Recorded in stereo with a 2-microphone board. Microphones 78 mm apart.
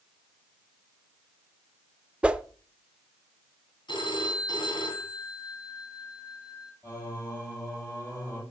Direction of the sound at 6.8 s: 30° left (ahead or behind).